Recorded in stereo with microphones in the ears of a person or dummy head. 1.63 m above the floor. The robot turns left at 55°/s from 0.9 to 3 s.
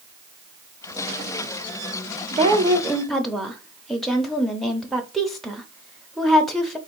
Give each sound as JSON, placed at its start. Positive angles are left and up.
{"t": 2.3, "sound": "a woman speaking", "azimuth_deg": -140, "distance_m": 0.7}